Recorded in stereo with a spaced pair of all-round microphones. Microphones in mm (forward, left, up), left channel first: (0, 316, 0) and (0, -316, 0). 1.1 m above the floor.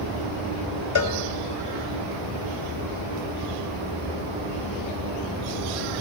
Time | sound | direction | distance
0.9 | a cowbell | 35° left (ahead or behind) | 2 m